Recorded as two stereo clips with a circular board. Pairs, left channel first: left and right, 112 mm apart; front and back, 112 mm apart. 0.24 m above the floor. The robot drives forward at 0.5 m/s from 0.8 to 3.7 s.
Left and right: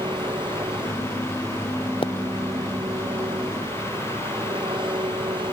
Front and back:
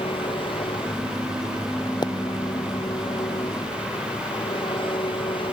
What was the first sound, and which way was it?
An engine running, 45° right.